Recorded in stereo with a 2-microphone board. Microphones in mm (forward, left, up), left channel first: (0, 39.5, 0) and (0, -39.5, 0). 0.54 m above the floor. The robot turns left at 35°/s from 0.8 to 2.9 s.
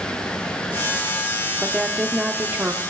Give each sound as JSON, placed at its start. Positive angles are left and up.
{"t": 1.6, "sound": "a woman speaking", "azimuth_deg": -10, "distance_m": 0.9}